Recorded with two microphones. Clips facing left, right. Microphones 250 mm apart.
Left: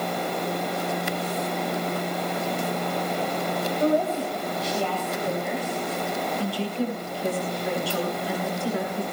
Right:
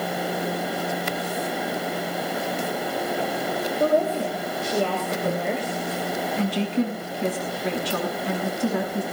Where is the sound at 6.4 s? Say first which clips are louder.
Right 6 dB; 85° right, 7.5 m.